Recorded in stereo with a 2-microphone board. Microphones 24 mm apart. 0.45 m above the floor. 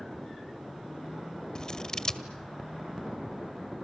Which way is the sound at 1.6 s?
30° left (ahead or behind).